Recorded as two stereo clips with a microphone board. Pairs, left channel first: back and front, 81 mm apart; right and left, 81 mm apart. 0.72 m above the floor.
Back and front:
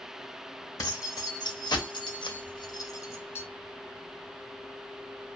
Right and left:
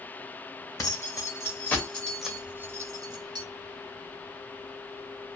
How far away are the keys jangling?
About 1.0 m.